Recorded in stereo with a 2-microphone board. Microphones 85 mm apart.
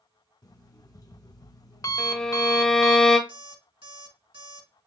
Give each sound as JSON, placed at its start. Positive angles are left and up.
{"t": 0.4, "sound": "an alarm clock", "side_deg": 40, "distance_m": 0.6}
{"t": 2.0, "sound": "a violin", "side_deg": 10, "distance_m": 0.8}
{"t": 3.3, "sound": "an alarm clock", "side_deg": -75, "distance_m": 2.0}